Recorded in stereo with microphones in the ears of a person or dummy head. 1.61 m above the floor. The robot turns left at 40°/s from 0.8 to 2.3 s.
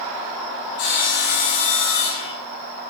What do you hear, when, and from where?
0.8 s sawing: 100° left, 1.4 m; by 2.3 s 40° left, 1.4 m